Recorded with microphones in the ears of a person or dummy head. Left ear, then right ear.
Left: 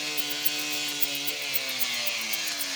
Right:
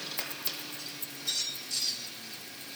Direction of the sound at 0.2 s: 5° right (ahead or behind).